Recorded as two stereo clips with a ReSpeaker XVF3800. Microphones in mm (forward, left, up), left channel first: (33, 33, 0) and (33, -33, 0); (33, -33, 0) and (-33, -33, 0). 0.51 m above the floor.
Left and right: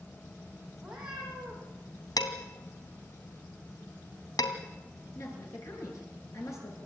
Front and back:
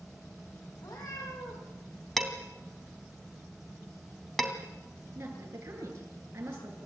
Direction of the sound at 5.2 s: 130° left.